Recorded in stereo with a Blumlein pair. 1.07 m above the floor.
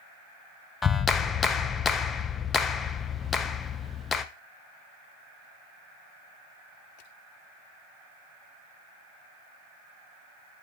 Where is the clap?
20° left, 0.7 m.